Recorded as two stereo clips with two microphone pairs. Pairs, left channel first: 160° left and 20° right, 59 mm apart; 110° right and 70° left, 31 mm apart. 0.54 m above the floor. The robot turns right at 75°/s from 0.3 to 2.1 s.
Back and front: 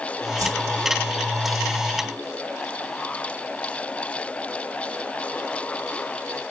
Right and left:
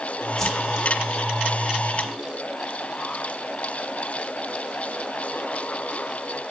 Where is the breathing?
No breathing in this recording.